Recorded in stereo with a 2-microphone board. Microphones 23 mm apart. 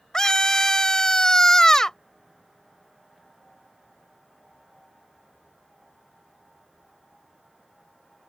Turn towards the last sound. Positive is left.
turn(degrees=30)  # may be behind; listen again after turning